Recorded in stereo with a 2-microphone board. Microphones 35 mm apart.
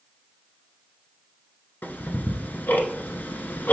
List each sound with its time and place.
1.8 s ticking: 80° left, 0.9 m